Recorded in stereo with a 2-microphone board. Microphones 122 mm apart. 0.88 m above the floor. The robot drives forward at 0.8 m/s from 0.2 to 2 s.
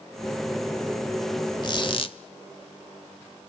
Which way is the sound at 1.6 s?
40° left (ahead or behind).